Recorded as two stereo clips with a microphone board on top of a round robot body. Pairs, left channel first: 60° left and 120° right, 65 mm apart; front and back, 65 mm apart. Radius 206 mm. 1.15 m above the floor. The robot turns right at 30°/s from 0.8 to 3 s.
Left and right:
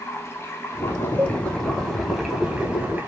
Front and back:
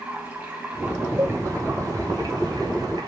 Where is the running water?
115° left, 3 m; by 3.1 s straight behind, 3 m.